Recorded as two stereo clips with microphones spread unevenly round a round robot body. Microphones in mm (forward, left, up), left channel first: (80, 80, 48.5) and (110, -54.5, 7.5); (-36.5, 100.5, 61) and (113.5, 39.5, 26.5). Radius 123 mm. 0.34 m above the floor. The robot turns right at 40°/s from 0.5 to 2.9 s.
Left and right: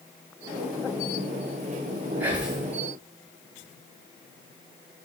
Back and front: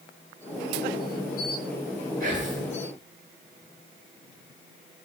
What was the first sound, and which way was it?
Whispering, 15° right.